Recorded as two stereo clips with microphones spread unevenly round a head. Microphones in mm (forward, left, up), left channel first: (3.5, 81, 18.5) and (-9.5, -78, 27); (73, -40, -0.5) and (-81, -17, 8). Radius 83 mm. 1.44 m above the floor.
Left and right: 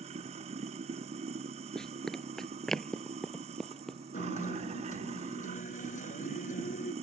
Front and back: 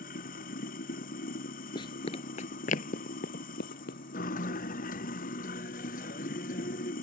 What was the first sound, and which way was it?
Running water, 40° right.